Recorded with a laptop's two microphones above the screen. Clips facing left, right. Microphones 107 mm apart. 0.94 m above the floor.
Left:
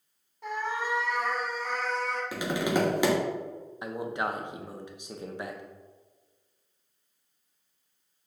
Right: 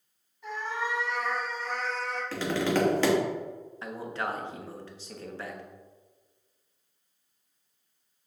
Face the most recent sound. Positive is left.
turn(degrees=15)  # may be behind; listen again after turning